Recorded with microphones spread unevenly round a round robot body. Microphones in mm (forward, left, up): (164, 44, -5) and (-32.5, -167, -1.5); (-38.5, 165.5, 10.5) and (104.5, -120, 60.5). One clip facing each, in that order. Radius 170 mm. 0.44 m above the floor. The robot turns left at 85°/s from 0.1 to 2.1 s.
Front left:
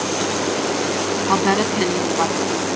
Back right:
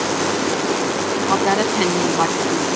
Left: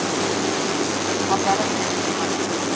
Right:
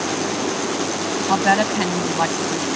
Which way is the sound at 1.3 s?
5° right.